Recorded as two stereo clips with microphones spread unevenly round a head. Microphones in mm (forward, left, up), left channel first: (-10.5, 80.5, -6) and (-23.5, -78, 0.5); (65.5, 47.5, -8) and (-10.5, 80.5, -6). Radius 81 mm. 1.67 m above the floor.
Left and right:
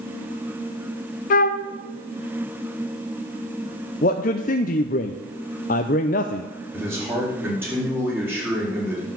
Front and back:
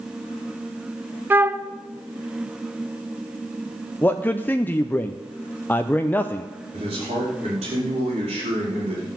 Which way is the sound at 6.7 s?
170° right.